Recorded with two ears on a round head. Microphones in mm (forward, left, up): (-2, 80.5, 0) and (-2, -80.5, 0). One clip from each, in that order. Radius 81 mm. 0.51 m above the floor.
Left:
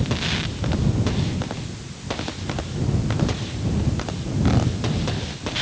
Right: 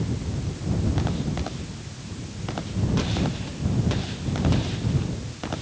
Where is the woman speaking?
No woman speaking in this recording.